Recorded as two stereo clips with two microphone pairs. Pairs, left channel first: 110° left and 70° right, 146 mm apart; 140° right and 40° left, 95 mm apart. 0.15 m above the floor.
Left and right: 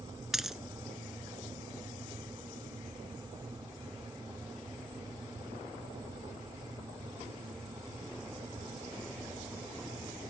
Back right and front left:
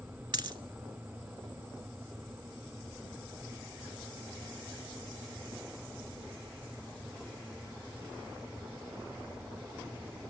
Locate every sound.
0.3 s a dropped coin: 15° left, 0.6 m